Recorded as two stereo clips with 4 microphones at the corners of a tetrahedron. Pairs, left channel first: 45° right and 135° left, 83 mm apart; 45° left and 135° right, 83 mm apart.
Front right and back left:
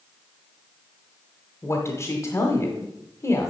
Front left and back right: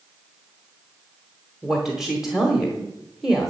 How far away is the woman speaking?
About 1.1 m.